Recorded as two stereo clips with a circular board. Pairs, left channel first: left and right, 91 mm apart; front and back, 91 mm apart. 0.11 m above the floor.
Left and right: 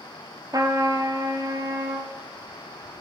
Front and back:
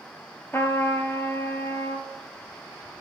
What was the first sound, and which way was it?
A trumpet, 55° right.